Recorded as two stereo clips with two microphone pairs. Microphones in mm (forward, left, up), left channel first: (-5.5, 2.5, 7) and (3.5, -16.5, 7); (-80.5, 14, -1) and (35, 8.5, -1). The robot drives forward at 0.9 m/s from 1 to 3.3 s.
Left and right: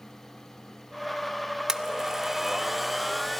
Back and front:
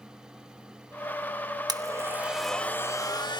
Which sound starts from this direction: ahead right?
A blender, at 1.7 s.